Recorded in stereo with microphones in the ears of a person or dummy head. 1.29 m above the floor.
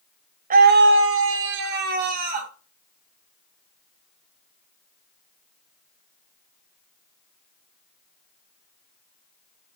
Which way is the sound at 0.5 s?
45° right (ahead or behind).